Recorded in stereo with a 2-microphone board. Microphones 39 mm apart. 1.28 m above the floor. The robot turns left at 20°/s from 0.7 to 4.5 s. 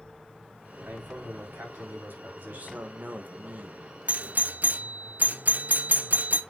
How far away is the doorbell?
About 0.6 m.